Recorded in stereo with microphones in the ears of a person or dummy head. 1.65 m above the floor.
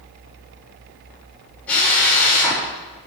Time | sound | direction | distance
1.7 | a drill | 10° left (ahead or behind) | 7.5 m